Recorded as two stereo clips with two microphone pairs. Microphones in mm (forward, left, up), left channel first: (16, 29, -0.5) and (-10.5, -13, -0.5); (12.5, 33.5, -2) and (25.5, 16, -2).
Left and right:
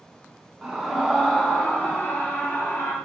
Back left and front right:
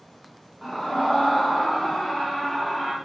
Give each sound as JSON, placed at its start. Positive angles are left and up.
{"t": 0.6, "sound": "a scream", "azimuth_deg": 165, "distance_m": 1.3}